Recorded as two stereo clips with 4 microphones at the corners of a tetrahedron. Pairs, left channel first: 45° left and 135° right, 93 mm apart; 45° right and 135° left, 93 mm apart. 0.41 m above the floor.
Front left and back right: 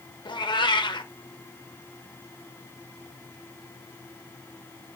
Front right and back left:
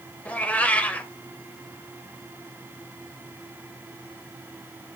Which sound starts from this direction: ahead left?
A cat meowing, at 0.2 s.